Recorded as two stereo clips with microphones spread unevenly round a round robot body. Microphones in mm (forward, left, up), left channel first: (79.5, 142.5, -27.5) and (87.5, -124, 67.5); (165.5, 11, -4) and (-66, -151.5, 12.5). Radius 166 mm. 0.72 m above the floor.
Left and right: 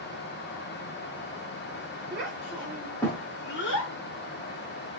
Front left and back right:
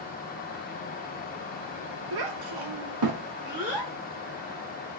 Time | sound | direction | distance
2.1 | a child speaking | 150° right | 0.8 m